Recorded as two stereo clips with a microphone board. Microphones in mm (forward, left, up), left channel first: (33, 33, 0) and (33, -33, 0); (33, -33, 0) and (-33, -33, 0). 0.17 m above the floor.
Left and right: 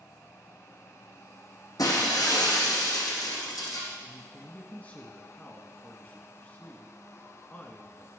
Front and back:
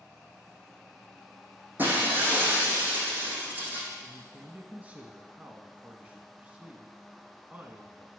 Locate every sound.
1.8 s breaking glass: 115° left, 3.5 m
4.0 s a man speaking: 135° left, 1.3 m